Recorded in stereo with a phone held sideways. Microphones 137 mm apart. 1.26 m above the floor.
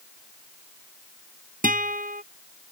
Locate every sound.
1.6 s a guitar: 80° right